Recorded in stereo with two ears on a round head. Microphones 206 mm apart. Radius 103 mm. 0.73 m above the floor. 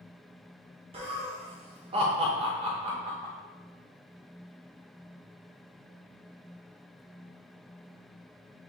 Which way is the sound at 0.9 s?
25° right (ahead or behind).